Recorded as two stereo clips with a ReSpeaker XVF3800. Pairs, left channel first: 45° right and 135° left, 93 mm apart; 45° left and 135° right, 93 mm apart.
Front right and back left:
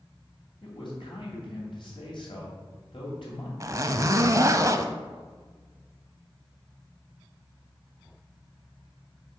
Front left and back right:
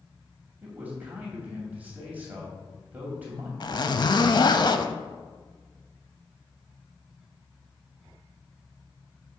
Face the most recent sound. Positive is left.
turn(degrees=80)